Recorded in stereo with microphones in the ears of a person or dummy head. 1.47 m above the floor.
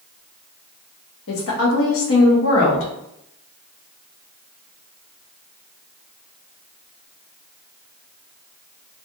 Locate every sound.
1.3 s a woman speaking: 65° left (ahead or behind), 0.8 m